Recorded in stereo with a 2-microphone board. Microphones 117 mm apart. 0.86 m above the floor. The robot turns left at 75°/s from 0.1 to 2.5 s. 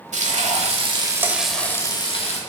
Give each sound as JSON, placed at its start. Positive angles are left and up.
{"t": 0.1, "sound": "frying", "azimuth_deg": -80, "distance_m": 1.2}